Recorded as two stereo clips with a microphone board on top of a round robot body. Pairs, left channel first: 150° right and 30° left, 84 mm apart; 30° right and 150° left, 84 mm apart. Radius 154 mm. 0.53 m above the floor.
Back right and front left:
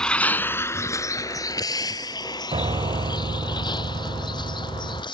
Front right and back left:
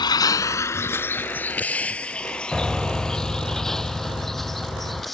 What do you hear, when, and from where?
0.0 s a vehicle: 70° right; by 5.1 s 120° right
2.5 s a piano: 60° left